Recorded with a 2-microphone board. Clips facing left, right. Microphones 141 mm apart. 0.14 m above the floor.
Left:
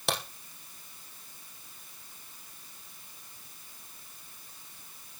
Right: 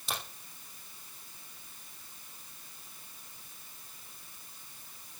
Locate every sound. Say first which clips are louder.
0.1 s a crack: left 7 dB; 75° left (ahead or behind), 4.5 m